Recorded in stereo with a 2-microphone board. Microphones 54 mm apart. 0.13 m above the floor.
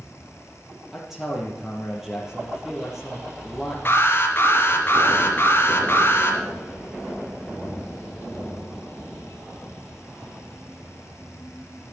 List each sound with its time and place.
0.9 s a man speaking: 5° right (ahead or behind), 3.5 m
3.9 s an alarm: 40° left (ahead or behind), 3.5 m